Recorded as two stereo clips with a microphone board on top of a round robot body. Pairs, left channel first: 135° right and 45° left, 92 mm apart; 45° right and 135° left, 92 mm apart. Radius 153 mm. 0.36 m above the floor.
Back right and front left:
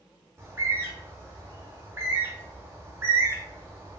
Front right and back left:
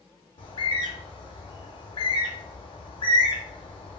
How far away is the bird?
About 0.6 m.